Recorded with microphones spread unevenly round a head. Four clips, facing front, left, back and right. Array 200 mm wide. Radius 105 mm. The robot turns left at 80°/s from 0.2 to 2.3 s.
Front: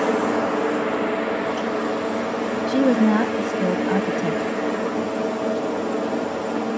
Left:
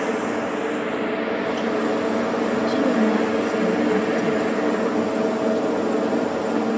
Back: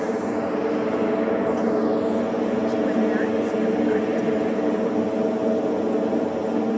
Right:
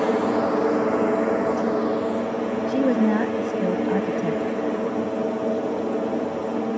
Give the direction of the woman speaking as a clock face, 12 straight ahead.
12 o'clock.